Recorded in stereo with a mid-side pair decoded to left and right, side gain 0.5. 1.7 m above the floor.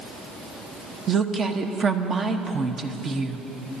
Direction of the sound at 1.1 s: 40° right.